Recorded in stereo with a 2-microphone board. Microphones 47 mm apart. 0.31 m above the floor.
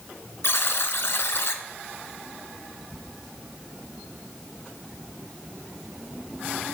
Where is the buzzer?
65° left (ahead or behind), 0.7 m.